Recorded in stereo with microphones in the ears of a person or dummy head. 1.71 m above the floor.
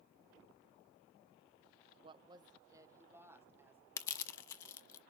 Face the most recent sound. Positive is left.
turn(degrees=20)  # may be behind; listen again after turning